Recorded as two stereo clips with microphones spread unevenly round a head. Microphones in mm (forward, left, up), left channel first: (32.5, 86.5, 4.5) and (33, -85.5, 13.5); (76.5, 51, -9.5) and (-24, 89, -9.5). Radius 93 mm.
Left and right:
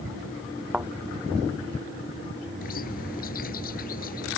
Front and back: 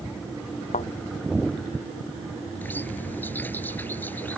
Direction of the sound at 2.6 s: 50° left.